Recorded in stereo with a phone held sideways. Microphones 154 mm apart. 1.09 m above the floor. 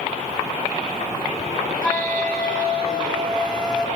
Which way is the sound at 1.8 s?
5° left (ahead or behind).